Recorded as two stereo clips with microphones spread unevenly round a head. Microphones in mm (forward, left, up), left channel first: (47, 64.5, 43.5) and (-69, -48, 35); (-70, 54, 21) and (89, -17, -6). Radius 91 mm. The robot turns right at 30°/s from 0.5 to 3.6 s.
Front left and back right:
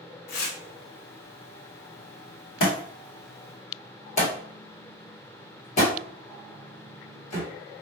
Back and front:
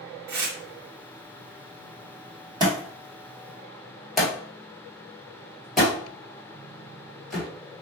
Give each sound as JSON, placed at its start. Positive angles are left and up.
{"t": 0.3, "sound": "tearing paper", "azimuth_deg": 10, "distance_m": 1.0}
{"t": 2.6, "sound": "a thud", "azimuth_deg": 45, "distance_m": 1.8}